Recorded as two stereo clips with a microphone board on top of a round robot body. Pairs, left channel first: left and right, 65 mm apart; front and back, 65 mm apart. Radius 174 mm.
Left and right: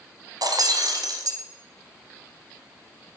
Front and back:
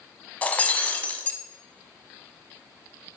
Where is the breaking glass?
70° right, 1.4 m.